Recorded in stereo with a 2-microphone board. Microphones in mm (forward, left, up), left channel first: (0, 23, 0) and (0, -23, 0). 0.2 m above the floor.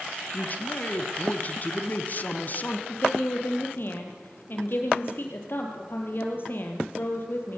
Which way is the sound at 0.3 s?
40° left (ahead or behind).